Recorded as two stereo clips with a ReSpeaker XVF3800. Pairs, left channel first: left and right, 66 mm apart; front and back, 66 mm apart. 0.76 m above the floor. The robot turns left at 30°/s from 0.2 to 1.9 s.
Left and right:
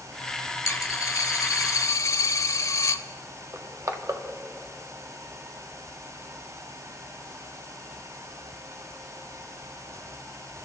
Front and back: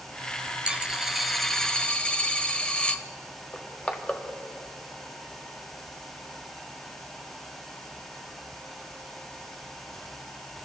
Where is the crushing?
65° right, 1.3 m.